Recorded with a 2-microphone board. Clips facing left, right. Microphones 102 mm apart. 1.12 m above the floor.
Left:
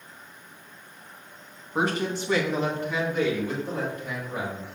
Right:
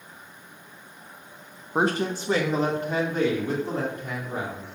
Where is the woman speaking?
30° right (ahead or behind), 0.7 m; by 4.7 s 40° right (ahead or behind), 2.5 m.